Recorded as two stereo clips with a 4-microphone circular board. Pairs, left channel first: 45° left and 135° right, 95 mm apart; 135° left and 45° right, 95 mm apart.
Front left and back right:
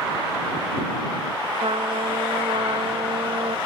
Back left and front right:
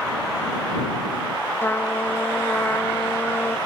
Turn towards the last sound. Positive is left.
turn(degrees=-155)